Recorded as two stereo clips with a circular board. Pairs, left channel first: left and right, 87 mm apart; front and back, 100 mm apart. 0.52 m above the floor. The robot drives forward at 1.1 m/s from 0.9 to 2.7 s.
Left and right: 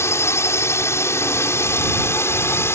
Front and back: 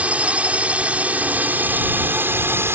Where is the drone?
115° left; by 2.8 s 130° left.